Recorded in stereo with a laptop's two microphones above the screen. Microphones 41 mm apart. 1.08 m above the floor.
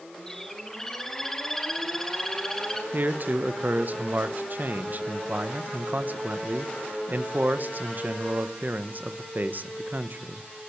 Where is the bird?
15° left (ahead or behind), 2 m.